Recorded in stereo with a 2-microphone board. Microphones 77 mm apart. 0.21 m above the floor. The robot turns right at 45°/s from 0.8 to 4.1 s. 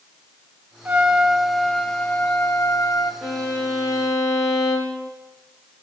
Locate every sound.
0.8 s a trumpet: 30° right, 1.6 m; by 3.1 s 75° left, 1.6 m
3.2 s a violin: straight ahead, 4.5 m; by 5.1 s 40° left, 4.5 m